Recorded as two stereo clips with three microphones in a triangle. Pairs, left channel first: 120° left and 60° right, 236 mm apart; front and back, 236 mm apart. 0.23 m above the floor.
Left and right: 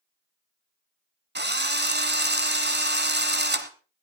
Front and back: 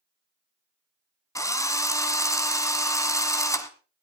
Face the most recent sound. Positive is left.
turn(degrees=-70)